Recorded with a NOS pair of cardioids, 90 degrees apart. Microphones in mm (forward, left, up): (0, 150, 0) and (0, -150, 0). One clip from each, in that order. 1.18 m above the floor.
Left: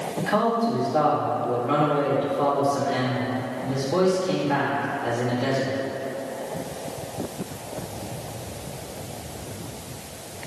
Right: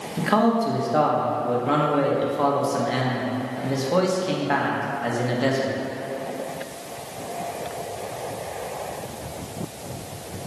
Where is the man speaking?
50° right, 1.6 m.